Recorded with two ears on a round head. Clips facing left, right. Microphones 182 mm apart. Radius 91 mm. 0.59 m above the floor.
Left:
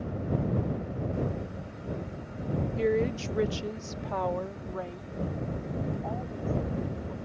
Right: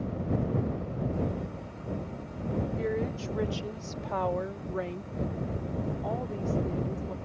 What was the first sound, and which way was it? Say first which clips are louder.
A woman speaking: left 4 dB; 40° left (ahead or behind).